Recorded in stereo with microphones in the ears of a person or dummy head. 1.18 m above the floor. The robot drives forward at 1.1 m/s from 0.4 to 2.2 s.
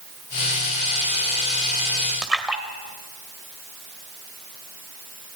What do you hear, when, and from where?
2.2 s a splash: centre (ahead or behind), 2 m